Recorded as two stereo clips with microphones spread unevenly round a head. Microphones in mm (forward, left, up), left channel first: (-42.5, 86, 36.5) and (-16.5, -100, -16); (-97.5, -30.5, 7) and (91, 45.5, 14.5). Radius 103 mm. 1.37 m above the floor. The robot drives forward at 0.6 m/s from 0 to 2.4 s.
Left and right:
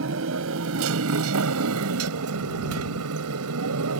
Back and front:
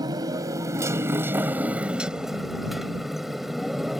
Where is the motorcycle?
50° right; by 4.0 s 65° right.